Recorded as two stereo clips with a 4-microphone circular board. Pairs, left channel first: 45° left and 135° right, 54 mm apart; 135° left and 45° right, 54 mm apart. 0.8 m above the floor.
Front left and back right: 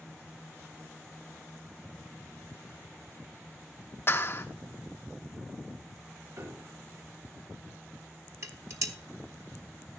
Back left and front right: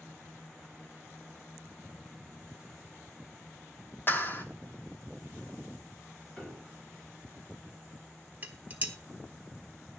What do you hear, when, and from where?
4.1 s a clap: 85° left, 1.3 m
6.4 s a piano: 145° right, 5 m
8.4 s dishes clattering: 105° right, 1.2 m